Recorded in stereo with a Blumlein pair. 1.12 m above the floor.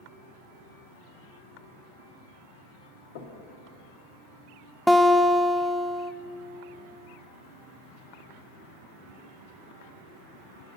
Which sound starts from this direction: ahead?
A guitar, at 4.9 s.